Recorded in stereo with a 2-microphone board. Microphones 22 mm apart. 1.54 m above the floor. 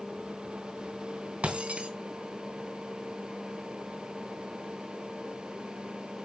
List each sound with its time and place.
1.4 s breaking glass: 60° right (ahead or behind), 4.5 m